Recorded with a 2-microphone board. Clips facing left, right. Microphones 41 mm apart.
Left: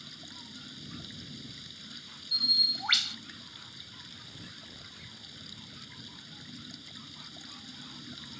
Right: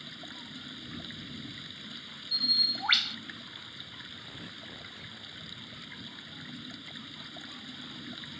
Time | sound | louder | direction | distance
0.0 | running water | right 4 dB | 30° right (ahead or behind) | ?
2.3 | a bird | left 1 dB | 10° right (ahead or behind) | ?
4.2 | tearing paper | right 4 dB | 25° right (ahead or behind) | ?